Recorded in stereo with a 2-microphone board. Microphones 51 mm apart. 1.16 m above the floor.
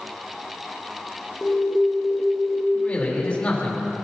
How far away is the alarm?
About 1.0 m.